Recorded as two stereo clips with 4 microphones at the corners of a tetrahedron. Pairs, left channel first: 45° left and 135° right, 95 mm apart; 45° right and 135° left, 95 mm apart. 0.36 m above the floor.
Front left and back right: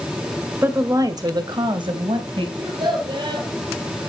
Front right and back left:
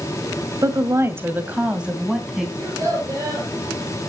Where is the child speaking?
165° right, 10 m.